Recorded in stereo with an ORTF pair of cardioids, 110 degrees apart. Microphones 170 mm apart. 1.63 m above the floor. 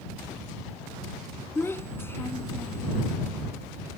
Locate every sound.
1.6 s a child speaking: 15° left